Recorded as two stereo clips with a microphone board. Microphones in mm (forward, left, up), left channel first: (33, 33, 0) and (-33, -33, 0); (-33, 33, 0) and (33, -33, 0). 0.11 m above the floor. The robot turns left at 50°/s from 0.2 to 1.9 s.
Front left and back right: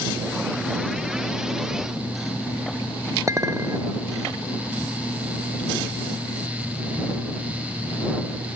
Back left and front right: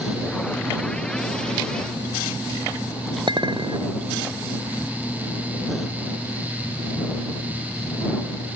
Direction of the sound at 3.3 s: 80° right.